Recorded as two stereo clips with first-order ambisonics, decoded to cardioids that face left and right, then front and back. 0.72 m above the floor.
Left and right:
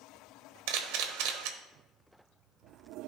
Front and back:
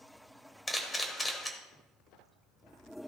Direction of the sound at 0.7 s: 80° right.